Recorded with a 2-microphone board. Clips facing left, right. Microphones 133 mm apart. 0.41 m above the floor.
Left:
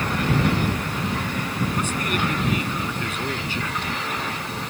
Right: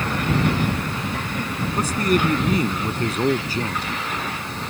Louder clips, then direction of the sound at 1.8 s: Right 9 dB; 40° right (ahead or behind).